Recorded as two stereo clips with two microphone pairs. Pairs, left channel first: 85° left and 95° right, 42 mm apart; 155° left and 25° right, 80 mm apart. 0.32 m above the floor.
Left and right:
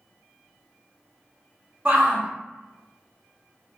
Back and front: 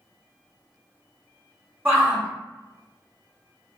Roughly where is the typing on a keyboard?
I don't hear typing on a keyboard.